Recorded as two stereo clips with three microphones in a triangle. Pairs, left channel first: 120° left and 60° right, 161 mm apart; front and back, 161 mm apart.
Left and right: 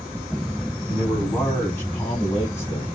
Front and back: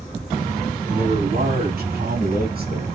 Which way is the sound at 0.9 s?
155° right.